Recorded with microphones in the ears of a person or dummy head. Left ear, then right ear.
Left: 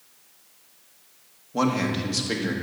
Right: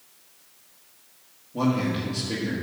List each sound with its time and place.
1.5 s a man speaking: 55° left (ahead or behind), 1.5 m